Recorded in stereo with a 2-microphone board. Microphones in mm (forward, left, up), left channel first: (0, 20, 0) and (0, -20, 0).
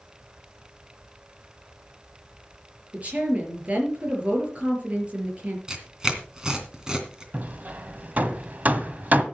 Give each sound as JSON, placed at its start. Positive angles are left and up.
{"t": 2.9, "sound": "a woman speaking", "side_deg": -35, "distance_m": 5.0}
{"t": 5.7, "sound": "tearing paper", "side_deg": -20, "distance_m": 2.5}
{"t": 7.3, "sound": "hammering", "side_deg": -45, "distance_m": 1.5}